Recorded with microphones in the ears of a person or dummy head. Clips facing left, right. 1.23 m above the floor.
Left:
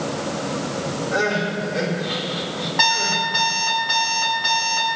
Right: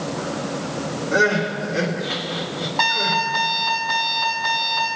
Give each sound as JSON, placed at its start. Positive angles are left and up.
{"t": 1.1, "sound": "crying", "side_deg": -45, "distance_m": 2.5}
{"t": 2.8, "sound": "an alarm clock", "side_deg": 15, "distance_m": 5.0}